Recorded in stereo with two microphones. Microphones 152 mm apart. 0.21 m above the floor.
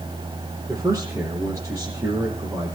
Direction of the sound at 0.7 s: 20° right (ahead or behind).